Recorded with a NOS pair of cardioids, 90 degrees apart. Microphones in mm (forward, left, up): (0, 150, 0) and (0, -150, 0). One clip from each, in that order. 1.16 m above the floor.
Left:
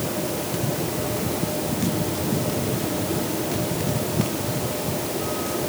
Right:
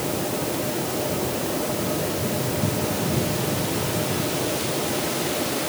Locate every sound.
Only background noise.